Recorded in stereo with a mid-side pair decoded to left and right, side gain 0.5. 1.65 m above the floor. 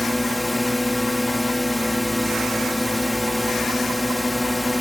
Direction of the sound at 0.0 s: 10° left.